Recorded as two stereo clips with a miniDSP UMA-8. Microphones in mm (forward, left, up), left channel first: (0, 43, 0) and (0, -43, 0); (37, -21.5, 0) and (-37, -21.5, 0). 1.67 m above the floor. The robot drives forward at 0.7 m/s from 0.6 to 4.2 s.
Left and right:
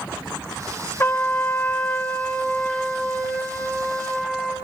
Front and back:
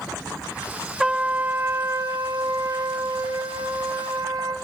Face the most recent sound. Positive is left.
turn(degrees=170)